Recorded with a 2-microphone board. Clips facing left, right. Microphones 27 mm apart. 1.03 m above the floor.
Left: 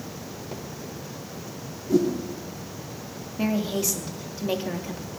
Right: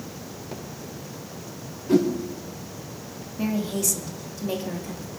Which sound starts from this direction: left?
A woman speaking, at 3.4 s.